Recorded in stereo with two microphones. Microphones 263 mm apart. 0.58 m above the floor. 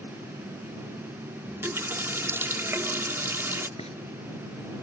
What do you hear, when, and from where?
1.5 s a running tap: 10° right (ahead or behind)
3.8 s frying: 25° left (ahead or behind)